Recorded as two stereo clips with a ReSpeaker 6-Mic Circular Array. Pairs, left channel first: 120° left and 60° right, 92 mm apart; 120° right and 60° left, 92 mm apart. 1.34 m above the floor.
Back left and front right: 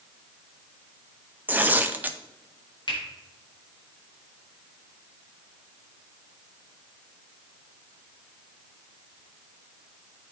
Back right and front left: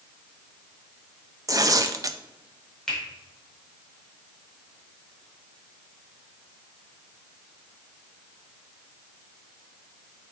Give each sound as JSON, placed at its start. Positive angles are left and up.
{"t": 1.5, "sound": "tearing paper", "azimuth_deg": 10, "distance_m": 0.5}
{"t": 2.9, "sound": "a finger snap", "azimuth_deg": 155, "distance_m": 4.0}